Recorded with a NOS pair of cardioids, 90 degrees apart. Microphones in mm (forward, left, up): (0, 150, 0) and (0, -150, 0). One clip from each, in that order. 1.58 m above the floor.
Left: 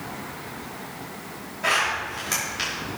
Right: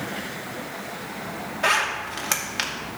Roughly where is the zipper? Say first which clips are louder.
Right 1 dB; ahead right.